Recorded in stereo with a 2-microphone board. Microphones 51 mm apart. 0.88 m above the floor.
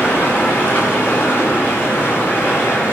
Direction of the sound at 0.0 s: 45° left (ahead or behind).